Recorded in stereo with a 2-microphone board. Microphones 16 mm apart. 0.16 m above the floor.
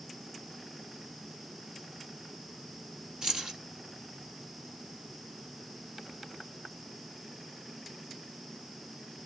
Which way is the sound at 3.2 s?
65° right (ahead or behind).